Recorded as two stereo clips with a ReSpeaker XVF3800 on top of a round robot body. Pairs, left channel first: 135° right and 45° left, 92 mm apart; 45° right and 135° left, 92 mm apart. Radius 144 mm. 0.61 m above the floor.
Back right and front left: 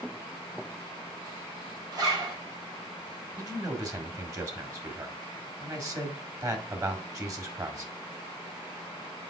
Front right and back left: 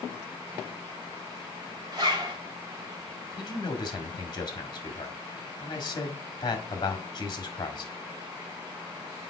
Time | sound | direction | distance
1.9 | a zipper | 90° left | 3 m
3.4 | a man speaking | 5° right | 2.0 m